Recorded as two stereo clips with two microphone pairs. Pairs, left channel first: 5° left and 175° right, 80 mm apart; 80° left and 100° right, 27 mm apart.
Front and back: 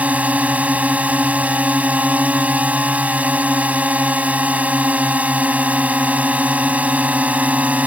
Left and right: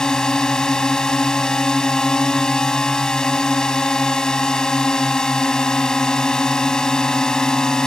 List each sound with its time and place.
0.0 s a drone: 125° left